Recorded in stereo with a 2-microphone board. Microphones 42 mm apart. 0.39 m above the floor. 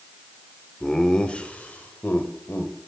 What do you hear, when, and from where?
0.8 s laughter: 10° left (ahead or behind), 0.8 m; by 2.8 s 55° left (ahead or behind), 1.4 m